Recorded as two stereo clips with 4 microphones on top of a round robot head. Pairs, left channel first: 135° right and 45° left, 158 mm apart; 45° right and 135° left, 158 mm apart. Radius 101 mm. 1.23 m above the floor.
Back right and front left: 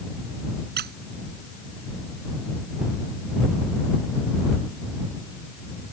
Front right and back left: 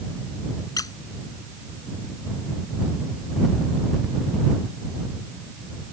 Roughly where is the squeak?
Ahead.